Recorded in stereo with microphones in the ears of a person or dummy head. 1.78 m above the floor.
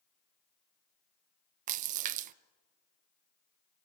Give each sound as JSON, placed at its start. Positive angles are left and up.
{"t": 1.7, "sound": "a splash", "side_deg": -40, "distance_m": 0.7}